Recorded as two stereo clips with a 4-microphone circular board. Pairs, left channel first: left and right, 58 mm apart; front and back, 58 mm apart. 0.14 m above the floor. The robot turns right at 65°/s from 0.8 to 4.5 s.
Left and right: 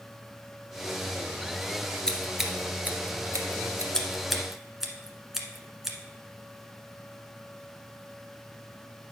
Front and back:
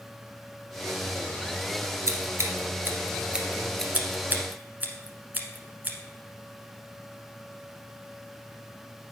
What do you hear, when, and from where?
2.1 s scissors: 165° left, 1.4 m; by 3.8 s 80° right, 1.4 m
3.9 s scissors: 155° left, 1.1 m; by 6.0 s 165° right, 1.1 m